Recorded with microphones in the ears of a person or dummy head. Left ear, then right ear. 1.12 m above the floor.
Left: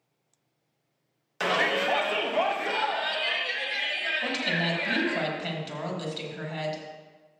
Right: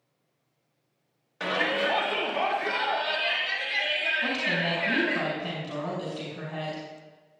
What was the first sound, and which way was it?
A shout, 75° left (ahead or behind).